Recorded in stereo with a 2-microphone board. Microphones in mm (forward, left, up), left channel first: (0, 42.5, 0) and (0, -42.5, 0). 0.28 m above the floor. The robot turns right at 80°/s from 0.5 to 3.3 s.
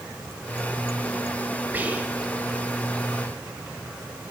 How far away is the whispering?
About 0.9 m.